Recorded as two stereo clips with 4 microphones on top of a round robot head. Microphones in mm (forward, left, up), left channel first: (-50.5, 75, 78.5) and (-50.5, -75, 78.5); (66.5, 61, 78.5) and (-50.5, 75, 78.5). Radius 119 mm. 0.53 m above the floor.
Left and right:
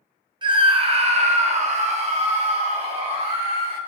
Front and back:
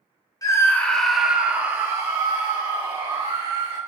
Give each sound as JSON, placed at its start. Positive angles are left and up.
{"t": 0.4, "sound": "a scream", "azimuth_deg": -50, "distance_m": 1.2}